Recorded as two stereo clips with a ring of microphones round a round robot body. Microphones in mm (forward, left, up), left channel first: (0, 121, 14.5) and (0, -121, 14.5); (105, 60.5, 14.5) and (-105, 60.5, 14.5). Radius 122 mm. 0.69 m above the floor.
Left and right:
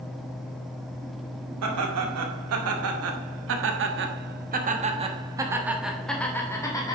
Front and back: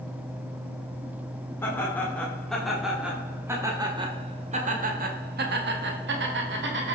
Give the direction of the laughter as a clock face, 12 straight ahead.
3 o'clock.